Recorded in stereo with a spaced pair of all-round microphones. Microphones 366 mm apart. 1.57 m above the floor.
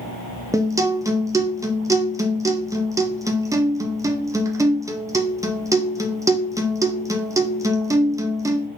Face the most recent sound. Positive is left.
turn(degrees=-10)  # may be behind; listen again after turning